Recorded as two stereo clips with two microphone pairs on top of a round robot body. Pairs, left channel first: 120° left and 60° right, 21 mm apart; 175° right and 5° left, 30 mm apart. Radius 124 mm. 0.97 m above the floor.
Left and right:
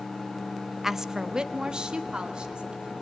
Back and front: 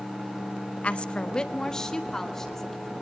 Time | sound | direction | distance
0.8 | a woman speaking | 135° right | 0.8 m